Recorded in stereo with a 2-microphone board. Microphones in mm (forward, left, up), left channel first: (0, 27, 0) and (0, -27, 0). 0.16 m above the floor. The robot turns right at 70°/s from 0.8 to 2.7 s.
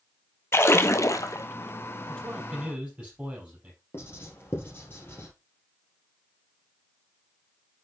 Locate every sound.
0.5 s a splash: 50° left, 0.7 m; by 1.5 s 95° left, 0.7 m
2.1 s a man speaking: 160° left, 4.5 m; by 3.8 s 155° right, 4.5 m
3.9 s writing: 45° left (ahead or behind), 3 m